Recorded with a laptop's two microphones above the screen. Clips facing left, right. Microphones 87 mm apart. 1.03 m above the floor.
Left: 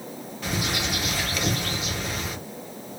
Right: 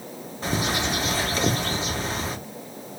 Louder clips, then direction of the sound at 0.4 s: Right 3 dB; 35° right (ahead or behind).